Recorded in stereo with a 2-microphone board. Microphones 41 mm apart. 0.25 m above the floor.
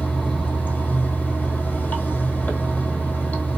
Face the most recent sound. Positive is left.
turn(degrees=40)  # may be behind; listen again after turning